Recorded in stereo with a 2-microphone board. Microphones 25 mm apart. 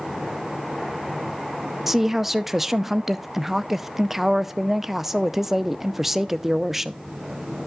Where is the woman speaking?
5° right (ahead or behind), 0.5 m.